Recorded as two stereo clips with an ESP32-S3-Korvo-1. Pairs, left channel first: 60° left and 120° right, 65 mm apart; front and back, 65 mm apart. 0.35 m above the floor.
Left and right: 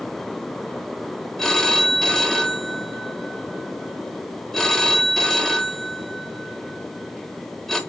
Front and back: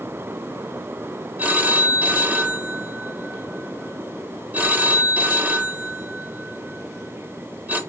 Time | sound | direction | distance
1.4 | a phone ringing | 135° left | 0.7 m